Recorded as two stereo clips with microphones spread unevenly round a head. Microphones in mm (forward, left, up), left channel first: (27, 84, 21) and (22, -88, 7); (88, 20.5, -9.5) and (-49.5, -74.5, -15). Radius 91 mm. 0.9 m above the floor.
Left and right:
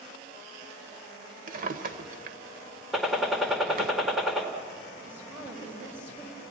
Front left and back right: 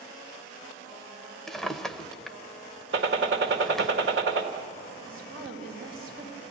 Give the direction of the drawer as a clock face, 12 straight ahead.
2 o'clock.